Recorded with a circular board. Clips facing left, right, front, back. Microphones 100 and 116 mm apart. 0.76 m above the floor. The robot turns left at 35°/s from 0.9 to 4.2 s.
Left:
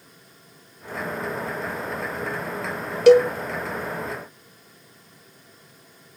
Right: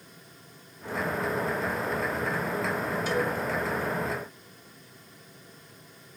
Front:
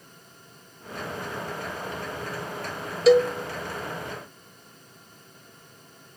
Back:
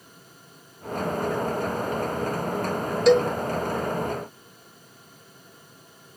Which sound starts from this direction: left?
A cowbell, at 3.1 s.